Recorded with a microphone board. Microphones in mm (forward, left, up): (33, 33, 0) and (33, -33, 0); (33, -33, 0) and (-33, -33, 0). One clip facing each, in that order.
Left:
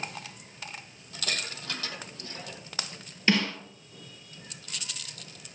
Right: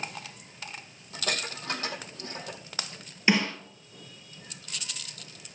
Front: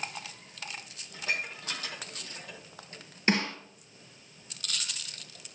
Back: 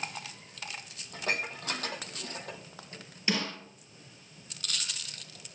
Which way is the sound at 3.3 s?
20° right.